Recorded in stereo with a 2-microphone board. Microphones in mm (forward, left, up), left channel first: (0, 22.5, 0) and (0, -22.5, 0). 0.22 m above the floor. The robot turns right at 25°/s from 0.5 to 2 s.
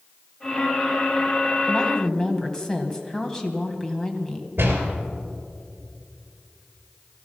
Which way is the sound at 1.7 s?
20° left (ahead or behind).